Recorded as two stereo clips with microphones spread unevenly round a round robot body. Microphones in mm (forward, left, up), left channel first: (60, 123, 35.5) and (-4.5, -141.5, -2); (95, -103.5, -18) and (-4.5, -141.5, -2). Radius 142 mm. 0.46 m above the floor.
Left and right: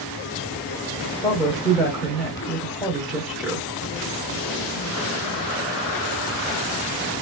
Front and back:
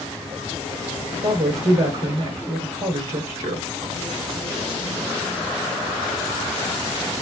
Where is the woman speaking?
170° left, 1.4 m.